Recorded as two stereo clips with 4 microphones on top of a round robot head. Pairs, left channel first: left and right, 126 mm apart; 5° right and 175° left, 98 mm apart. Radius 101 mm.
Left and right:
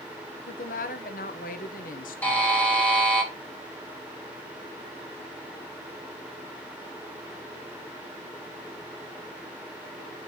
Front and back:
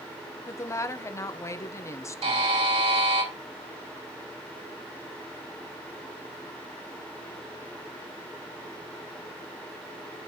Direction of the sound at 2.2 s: 165° left.